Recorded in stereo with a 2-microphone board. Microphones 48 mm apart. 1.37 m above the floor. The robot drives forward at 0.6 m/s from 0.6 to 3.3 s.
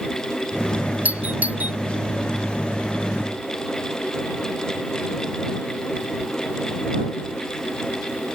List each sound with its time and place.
1.1 s a doorbell: 35° right (ahead or behind)